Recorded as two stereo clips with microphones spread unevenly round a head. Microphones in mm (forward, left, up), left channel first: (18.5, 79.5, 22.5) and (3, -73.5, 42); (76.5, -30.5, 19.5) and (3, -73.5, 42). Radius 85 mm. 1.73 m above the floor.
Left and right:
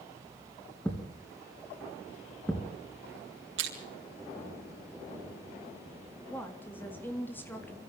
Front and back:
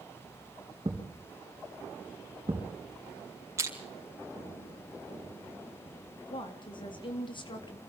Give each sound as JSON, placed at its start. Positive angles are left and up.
{"t": 0.8, "sound": "a thud", "azimuth_deg": 165, "distance_m": 3.5}
{"t": 3.6, "sound": "crushing", "azimuth_deg": -100, "distance_m": 4.5}
{"t": 6.3, "sound": "a woman speaking", "azimuth_deg": 5, "distance_m": 3.5}